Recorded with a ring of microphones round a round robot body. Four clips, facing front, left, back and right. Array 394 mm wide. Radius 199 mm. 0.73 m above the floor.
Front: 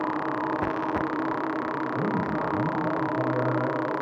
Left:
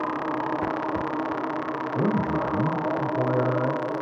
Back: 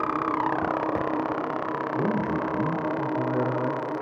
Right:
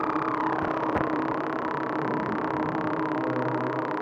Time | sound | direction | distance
1.9 | a man speaking | 75° left | 3 m